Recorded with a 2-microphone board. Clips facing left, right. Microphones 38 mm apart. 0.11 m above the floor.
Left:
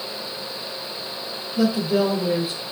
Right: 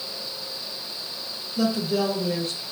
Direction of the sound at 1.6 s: 5° left (ahead or behind).